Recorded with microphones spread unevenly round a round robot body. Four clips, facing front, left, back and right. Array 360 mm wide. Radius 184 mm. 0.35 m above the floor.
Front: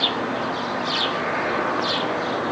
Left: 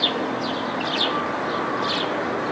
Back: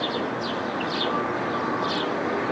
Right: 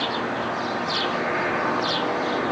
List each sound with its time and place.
Only background noise.